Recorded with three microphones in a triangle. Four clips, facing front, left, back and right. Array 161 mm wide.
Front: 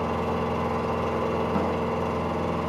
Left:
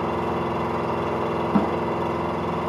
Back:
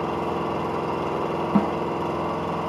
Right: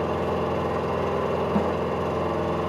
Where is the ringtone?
No ringtone in this recording.